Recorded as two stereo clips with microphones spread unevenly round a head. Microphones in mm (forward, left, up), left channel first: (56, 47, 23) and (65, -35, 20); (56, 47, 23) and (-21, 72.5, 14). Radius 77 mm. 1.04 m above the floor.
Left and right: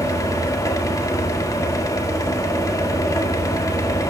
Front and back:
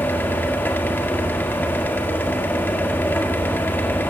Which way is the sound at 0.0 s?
50° left.